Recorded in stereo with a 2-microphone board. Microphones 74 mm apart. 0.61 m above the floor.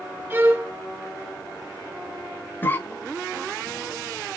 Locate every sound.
0.3 s a violin: 25° right (ahead or behind), 1.0 m
2.6 s a cough: 25° left (ahead or behind), 1.3 m